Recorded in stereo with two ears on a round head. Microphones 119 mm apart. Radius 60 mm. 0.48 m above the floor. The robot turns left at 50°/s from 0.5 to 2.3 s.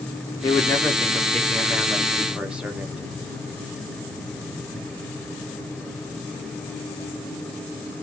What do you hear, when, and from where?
0.4 s a man speaking: 20° left (ahead or behind), 0.8 m; by 3.0 s 10° right (ahead or behind), 0.8 m